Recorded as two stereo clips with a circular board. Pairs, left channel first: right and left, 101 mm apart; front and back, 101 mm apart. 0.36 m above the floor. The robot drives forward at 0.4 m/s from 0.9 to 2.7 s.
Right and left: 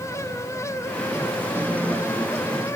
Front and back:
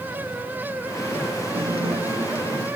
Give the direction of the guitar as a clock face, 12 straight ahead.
7 o'clock.